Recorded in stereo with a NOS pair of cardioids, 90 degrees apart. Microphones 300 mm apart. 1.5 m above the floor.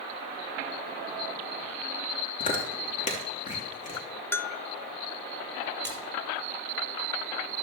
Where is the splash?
10° left, 4.5 m.